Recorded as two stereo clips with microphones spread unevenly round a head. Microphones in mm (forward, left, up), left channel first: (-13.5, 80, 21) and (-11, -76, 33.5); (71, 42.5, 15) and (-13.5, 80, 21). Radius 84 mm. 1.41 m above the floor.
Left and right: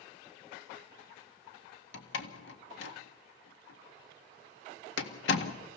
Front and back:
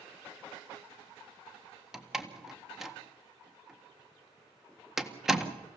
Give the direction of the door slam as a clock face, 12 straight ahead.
10 o'clock.